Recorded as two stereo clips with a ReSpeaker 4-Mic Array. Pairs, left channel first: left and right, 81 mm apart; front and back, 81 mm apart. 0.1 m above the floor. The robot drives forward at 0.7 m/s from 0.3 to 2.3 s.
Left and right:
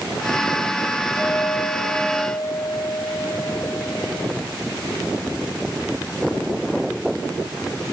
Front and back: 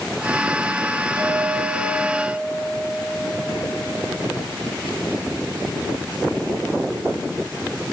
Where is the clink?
140° left, 6.5 m; by 4.3 s 145° left, 7.5 m.